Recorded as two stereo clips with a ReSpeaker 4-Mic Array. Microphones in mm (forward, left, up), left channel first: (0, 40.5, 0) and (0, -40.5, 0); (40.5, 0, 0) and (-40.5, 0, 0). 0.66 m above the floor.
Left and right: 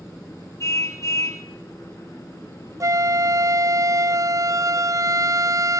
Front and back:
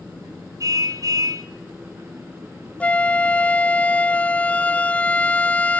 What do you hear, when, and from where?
0.6 s a car horn: 140° left, 3.5 m
2.8 s a flute: 65° right, 0.5 m